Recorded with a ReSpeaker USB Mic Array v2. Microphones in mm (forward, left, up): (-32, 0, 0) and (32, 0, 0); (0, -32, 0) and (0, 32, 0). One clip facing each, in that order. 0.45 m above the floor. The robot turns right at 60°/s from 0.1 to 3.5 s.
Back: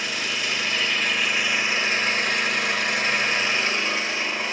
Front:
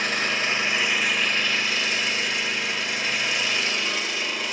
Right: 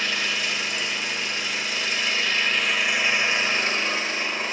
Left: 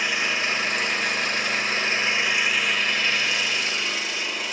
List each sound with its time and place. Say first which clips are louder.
0.0 s an engine running: front 3 dB, left 2 dB; 25° left, 1.8 m; by 4.5 s 130° right, 1.8 m